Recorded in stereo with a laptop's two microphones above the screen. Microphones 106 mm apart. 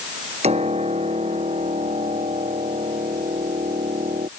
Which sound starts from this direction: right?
A piano, at 0.4 s.